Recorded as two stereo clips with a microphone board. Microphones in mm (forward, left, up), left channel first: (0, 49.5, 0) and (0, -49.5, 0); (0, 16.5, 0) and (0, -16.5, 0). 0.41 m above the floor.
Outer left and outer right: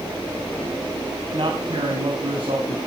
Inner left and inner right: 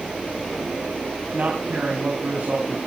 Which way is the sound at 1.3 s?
60° right (ahead or behind).